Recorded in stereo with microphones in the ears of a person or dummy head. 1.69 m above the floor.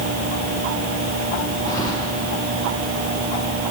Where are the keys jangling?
25° left (ahead or behind), 3 m.